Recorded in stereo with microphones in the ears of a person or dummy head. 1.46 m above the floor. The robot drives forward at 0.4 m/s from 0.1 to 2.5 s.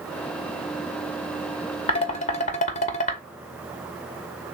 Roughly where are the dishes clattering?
Left.